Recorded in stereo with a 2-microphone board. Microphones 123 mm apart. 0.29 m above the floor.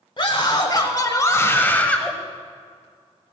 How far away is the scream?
About 1.2 m.